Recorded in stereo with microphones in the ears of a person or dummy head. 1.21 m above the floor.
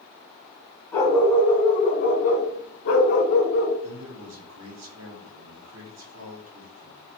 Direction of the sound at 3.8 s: 75° right (ahead or behind).